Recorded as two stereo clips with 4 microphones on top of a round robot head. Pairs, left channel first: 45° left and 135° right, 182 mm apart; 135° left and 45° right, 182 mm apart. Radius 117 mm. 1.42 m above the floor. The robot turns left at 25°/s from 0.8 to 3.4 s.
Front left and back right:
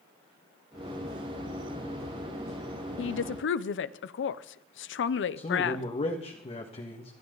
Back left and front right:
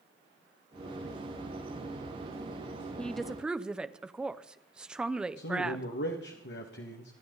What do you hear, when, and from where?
3.0 s a woman speaking: 50° left, 0.8 m; by 5.8 s 40° left, 0.8 m
5.4 s a man speaking: 105° left, 1.9 m